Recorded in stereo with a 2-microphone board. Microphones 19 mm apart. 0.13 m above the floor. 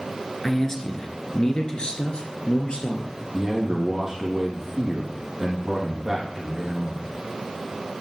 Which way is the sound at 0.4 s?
25° left (ahead or behind).